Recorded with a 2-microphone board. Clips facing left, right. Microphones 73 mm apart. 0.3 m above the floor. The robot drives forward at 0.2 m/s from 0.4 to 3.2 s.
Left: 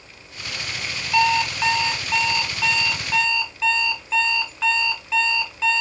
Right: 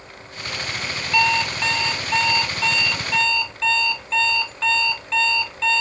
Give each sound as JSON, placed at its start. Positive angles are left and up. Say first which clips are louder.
{"t": 1.1, "sound": "an alarm clock", "louder": "left 1 dB", "side_deg": 5, "distance_m": 1.0}